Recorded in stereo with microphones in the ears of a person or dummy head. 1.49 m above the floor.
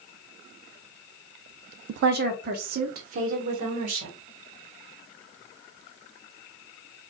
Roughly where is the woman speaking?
Right.